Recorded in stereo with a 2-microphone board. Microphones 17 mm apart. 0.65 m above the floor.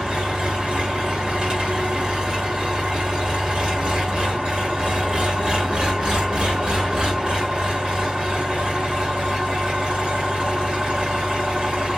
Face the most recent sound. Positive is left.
turn(degrees=-75)  # may be behind; listen again after turning